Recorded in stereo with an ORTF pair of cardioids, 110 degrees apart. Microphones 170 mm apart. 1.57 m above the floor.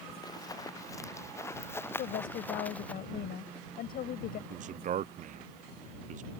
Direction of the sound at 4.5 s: 50° right.